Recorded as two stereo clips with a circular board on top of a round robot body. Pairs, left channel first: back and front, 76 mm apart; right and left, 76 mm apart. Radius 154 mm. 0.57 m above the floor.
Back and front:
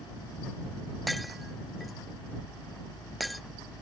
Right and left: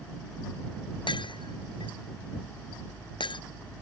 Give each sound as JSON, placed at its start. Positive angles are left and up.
{"t": 1.1, "sound": "breaking glass", "azimuth_deg": -90}